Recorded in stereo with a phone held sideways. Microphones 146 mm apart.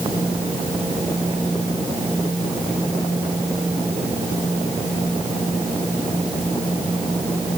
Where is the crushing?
No crushing in this recording.